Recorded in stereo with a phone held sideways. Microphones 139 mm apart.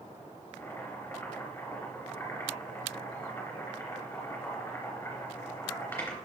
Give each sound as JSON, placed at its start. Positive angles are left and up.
{"t": 0.6, "sound": "boiling", "side_deg": 15, "distance_m": 3.0}